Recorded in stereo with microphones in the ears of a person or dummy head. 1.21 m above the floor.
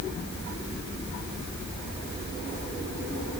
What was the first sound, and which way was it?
Only background noise.